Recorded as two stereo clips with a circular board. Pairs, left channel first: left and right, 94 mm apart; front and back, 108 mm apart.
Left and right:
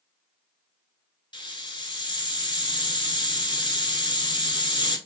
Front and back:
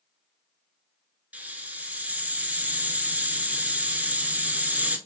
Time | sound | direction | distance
1.3 | a hiss | 105° left | 0.7 m